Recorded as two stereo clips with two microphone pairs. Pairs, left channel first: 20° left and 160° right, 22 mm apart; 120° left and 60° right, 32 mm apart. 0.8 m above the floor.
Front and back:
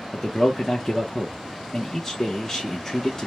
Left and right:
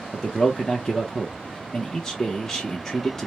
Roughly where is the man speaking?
Left.